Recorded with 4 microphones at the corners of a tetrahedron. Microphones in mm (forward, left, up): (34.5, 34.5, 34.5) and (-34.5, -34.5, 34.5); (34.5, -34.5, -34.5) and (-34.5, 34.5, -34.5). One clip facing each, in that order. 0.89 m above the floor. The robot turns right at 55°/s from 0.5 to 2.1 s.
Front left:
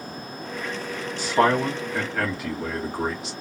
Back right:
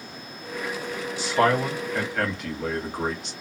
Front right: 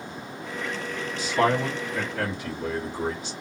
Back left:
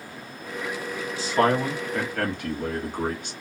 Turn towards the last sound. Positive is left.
turn(degrees=130)